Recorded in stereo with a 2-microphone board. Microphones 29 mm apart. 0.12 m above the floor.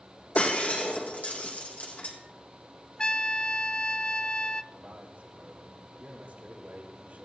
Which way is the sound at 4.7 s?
55° right (ahead or behind).